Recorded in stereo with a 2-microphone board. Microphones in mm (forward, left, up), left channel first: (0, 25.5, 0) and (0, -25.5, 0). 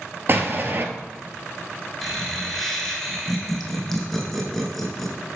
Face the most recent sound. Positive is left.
turn(degrees=5)  # may be behind; listen again after turning